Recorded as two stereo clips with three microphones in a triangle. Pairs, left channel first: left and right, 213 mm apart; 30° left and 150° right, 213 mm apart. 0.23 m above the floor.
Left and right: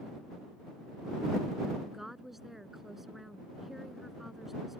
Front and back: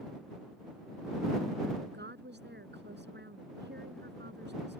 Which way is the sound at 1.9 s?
Straight behind.